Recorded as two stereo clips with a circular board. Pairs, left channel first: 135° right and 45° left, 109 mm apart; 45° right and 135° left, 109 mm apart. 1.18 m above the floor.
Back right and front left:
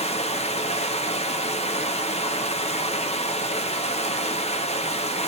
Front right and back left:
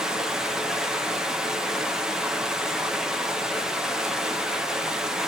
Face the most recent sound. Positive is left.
turn(degrees=-140)